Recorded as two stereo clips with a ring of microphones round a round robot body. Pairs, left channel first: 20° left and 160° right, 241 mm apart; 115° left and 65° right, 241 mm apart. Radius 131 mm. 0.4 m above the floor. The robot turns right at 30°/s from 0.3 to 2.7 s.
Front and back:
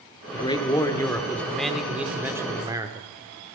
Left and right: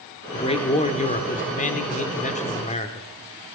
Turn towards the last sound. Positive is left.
turn(degrees=140)